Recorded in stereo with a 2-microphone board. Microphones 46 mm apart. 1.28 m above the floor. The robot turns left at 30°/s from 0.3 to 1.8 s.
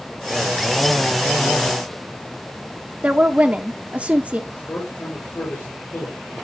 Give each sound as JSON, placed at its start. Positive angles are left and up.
{"t": 3.0, "sound": "a woman speaking", "side_deg": -35, "distance_m": 0.8}
{"t": 4.5, "sound": "a man speaking", "side_deg": 55, "distance_m": 4.0}